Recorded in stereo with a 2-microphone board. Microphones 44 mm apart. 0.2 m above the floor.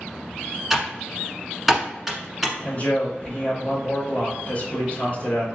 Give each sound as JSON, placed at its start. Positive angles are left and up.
{"t": 0.7, "sound": "typing on a keyboard", "side_deg": -5, "distance_m": 1.3}
{"t": 2.6, "sound": "a man speaking", "side_deg": 40, "distance_m": 2.5}